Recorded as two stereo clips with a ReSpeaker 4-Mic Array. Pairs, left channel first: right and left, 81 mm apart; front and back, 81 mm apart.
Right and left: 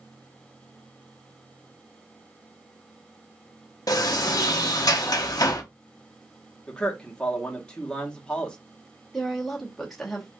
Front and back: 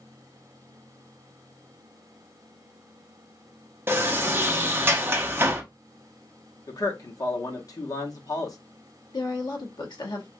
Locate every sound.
3.9 s a sliding door: 125° right, 0.6 m
6.7 s a man speaking: 15° right, 0.8 m
9.1 s a woman speaking: straight ahead, 0.9 m